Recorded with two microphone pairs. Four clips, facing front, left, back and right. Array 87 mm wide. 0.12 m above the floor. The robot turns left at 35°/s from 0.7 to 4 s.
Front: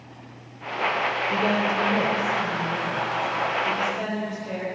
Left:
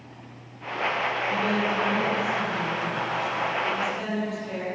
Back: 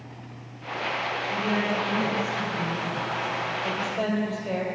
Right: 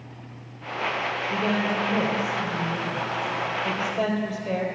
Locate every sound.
1.3 s a woman speaking: 5° right, 3.5 m; by 4.7 s 95° right, 3.5 m